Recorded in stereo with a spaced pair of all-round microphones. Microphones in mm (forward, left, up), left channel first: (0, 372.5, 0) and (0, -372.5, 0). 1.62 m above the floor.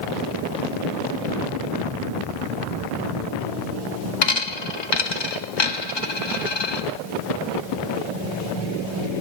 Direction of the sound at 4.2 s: 35° left (ahead or behind).